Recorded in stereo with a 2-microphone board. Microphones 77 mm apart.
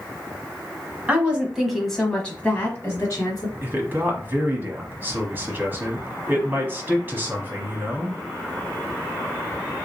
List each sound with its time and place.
1.1 s a woman speaking: 20° right (ahead or behind), 1.1 m; by 3.5 s 45° left (ahead or behind), 1.4 m
3.6 s a man speaking: 25° right (ahead or behind), 1.1 m